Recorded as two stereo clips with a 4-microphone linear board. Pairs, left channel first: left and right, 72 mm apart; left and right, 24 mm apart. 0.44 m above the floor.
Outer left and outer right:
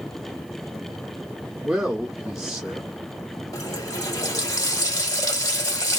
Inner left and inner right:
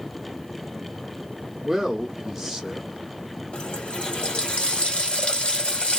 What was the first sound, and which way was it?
A man speaking, 5° right (ahead or behind).